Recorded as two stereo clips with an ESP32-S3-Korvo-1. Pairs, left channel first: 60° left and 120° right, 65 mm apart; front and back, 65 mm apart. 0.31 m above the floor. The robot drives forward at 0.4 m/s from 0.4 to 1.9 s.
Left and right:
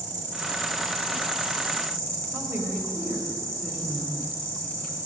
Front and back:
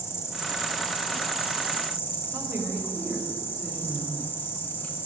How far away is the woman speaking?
About 1.4 m.